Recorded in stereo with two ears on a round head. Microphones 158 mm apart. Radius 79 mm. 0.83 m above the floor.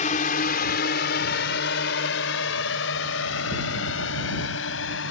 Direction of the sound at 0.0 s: 45° left (ahead or behind).